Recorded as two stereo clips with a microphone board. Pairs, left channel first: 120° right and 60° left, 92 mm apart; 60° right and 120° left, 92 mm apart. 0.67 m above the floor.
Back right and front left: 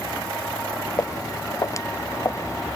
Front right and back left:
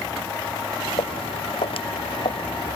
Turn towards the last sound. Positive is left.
turn(degrees=-60)